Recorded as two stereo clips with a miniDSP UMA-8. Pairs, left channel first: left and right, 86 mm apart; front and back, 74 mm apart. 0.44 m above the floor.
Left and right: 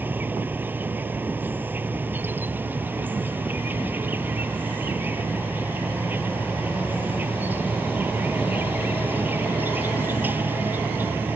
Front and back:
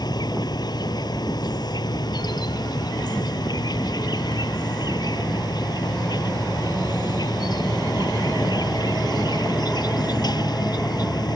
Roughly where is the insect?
Ahead right.